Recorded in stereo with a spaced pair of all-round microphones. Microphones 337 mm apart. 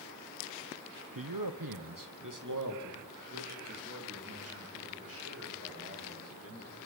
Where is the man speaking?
75° right (ahead or behind), 1.2 m; by 6.8 s 40° right (ahead or behind), 7.5 m.